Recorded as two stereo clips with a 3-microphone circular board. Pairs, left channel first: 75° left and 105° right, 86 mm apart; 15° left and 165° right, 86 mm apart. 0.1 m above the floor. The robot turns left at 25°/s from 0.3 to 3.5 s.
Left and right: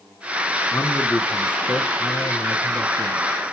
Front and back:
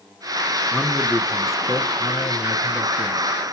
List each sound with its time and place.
0.7 s a man speaking: 130° left, 1.1 m; by 3.5 s 60° left, 1.1 m